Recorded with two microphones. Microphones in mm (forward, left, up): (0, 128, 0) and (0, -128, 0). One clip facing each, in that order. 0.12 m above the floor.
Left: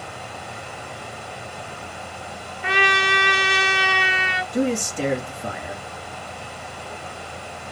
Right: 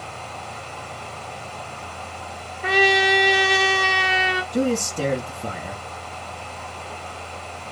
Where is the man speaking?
45° right (ahead or behind), 2.5 m.